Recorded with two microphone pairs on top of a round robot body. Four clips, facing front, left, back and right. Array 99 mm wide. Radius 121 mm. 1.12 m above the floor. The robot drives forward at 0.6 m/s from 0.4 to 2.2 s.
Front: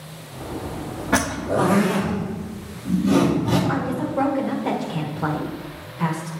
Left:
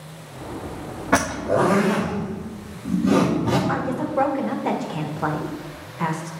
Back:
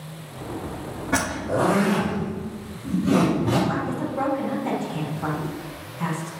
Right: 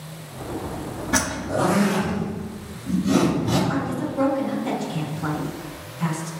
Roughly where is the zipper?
Left.